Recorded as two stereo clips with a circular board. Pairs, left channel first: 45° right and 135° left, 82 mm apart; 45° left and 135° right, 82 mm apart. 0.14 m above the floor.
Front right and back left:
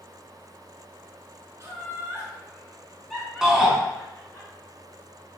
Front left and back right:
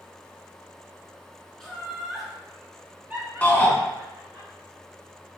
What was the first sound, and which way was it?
Laughter, 125° left.